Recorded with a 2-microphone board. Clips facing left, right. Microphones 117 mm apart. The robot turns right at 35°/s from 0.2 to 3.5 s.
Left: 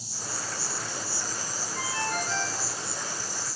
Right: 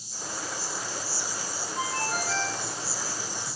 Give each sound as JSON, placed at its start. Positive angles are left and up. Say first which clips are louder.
{"t": 0.0, "sound": "an insect", "louder": "right 1 dB", "azimuth_deg": 90, "distance_m": 0.9}
{"t": 1.8, "sound": "a ringtone", "louder": "right 1 dB", "azimuth_deg": -155, "distance_m": 3.5}